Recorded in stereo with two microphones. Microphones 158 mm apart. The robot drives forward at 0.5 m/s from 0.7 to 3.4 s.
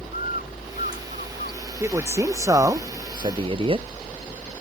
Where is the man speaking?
15° right (ahead or behind); by 3.9 s 35° right (ahead or behind).